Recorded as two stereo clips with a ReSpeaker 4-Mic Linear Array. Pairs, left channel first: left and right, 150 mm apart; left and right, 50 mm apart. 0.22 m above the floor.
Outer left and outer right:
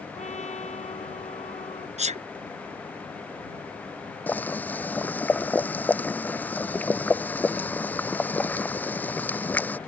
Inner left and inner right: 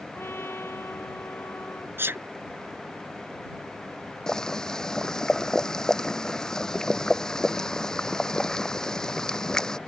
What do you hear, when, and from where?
0.1 s a trumpet: 50° left (ahead or behind)
2.0 s a sneeze: 50° right (ahead or behind)
4.3 s boiling: 10° left (ahead or behind)